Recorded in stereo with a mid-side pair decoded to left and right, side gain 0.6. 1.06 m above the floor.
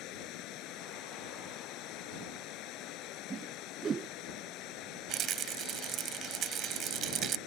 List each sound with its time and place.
0.0 s running water: 65° left
3.3 s a whoosh: 35° right
5.1 s a rattle: 60° right